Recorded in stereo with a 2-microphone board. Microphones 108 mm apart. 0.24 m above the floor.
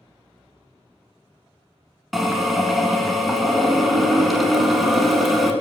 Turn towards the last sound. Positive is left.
turn(degrees=0)  # may be behind; listen again after turning